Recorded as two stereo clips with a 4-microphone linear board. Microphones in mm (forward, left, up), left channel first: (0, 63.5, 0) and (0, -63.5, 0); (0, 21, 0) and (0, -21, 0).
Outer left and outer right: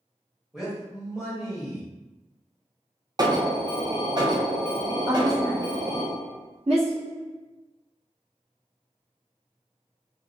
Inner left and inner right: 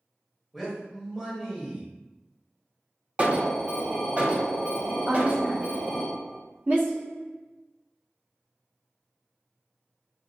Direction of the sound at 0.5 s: 5° right (ahead or behind).